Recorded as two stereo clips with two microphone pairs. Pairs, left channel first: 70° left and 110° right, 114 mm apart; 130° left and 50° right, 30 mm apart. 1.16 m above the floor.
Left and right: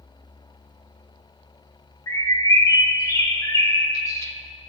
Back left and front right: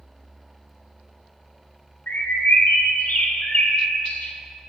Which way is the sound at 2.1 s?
130° left.